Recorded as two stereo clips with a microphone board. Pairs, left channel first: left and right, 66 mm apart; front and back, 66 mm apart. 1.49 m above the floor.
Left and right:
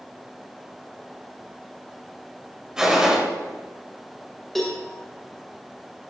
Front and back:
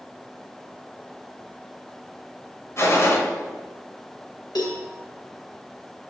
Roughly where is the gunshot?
Ahead.